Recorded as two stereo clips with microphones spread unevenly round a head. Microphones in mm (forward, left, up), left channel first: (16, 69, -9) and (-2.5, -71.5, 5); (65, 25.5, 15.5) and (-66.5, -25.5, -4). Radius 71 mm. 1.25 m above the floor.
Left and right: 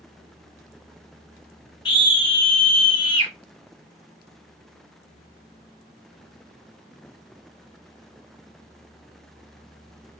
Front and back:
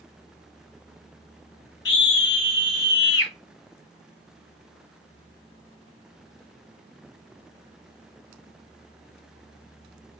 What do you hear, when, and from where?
1.9 s a scream: 25° left, 2 m